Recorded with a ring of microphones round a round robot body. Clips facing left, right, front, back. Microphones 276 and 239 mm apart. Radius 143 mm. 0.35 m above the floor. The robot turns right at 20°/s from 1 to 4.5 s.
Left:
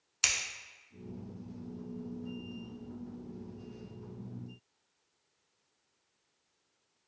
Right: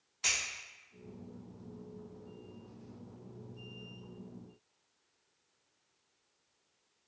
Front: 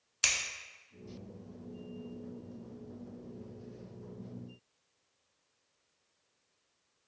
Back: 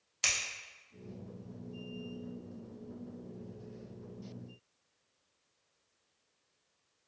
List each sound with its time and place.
0.2 s scissors: 75° left, 0.7 m